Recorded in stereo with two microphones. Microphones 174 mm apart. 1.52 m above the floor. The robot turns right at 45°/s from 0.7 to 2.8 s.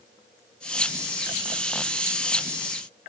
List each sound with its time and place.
Only background noise.